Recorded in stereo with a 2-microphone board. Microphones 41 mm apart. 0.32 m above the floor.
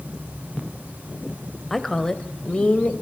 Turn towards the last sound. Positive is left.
turn(degrees=35)  # may be behind; listen again after turning